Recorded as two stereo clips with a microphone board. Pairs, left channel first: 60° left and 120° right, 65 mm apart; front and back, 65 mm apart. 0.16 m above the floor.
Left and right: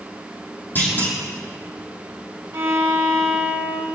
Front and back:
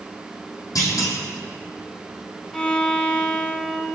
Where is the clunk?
Straight ahead, 4.5 m.